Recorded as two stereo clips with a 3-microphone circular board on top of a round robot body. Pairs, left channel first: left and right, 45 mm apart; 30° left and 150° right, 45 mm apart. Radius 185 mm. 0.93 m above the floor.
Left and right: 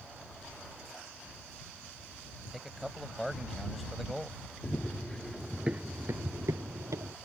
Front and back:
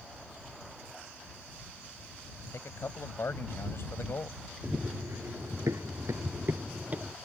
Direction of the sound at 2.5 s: Straight ahead.